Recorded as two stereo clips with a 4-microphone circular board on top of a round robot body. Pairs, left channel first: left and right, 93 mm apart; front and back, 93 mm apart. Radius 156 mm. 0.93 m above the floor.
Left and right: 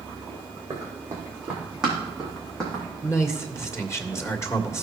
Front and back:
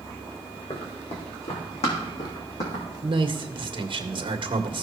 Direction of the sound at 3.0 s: 150° left.